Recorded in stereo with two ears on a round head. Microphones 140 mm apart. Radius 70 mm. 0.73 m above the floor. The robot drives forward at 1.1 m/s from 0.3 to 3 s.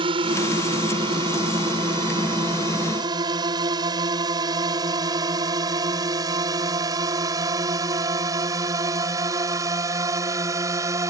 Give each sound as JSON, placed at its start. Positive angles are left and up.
{"t": 0.0, "sound": "a drone", "side_deg": -35}